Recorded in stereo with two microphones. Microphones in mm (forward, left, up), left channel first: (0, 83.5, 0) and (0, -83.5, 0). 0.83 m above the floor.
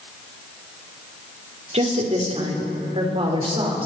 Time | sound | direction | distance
1.7 | a woman speaking | 40° right (ahead or behind) | 2.5 m